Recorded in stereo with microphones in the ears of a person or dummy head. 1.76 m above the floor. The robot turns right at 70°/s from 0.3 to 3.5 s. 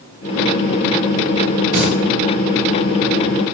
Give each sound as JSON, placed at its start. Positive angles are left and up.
{"t": 1.7, "sound": "singing", "side_deg": 20, "distance_m": 2.5}